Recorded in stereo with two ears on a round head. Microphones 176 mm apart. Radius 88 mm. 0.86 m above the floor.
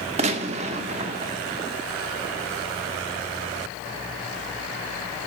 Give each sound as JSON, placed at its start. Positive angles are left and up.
{"t": 0.2, "sound": "a gunshot", "side_deg": -35, "distance_m": 1.2}